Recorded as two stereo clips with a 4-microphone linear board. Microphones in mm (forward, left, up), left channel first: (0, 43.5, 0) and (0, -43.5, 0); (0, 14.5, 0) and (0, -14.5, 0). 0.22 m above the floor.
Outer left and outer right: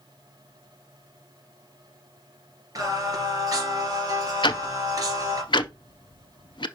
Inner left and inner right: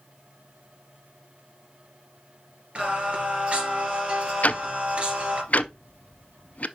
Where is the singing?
45° right (ahead or behind), 2 m.